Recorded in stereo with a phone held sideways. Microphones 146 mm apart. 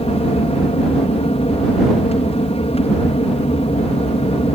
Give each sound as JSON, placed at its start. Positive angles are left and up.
{"t": 0.0, "sound": "an aircraft", "side_deg": 45}